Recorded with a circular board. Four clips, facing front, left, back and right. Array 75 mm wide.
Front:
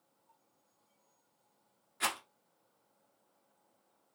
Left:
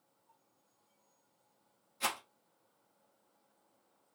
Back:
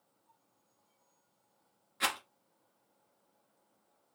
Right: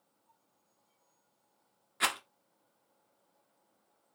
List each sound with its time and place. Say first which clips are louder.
2.0 s a rattle: right 4 dB, back 1 dB; 100° right, 1.4 m